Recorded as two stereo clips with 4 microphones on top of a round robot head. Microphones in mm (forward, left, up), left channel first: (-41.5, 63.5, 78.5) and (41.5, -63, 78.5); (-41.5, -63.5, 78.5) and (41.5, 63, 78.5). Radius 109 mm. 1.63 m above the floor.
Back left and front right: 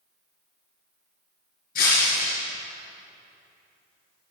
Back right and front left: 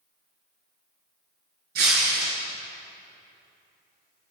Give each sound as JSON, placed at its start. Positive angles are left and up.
{"t": 1.8, "sound": "breaking glass", "azimuth_deg": 85, "distance_m": 5.5}